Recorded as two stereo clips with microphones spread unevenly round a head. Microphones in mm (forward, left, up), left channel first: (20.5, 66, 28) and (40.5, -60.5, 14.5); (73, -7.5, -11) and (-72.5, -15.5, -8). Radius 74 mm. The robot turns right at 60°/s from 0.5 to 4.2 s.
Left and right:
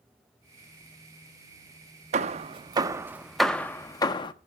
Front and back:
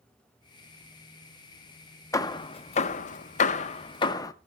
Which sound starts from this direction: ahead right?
Hammering, at 2.1 s.